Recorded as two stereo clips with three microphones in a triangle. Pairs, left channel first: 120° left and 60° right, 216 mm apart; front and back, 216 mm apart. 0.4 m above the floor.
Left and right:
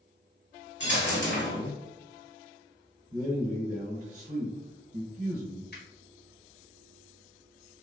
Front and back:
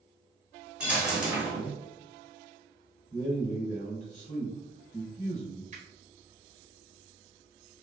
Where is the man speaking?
40° right, 1.1 m.